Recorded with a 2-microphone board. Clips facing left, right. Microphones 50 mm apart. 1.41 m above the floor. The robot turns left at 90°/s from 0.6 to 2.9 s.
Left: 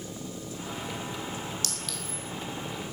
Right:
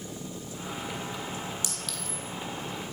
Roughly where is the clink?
Right.